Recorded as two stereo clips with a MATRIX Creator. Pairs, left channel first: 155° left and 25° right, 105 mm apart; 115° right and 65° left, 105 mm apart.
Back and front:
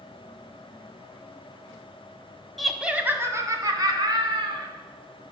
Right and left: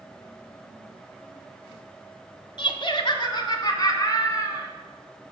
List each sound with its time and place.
2.6 s laughter: 115° right, 1.3 m; by 4.7 s 55° right, 3 m